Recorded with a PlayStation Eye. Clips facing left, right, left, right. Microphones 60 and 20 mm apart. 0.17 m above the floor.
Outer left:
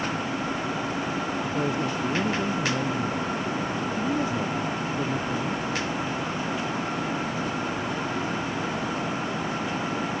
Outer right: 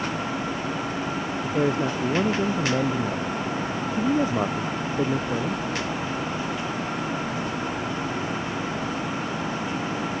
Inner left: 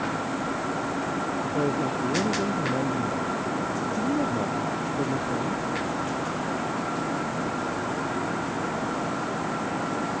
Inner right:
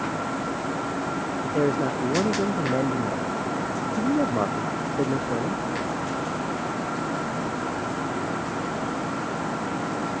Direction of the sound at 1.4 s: 40° right (ahead or behind).